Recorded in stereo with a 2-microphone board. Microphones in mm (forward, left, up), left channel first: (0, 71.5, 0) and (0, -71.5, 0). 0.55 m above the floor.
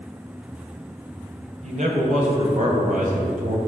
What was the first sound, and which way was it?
A man speaking, 60° right (ahead or behind).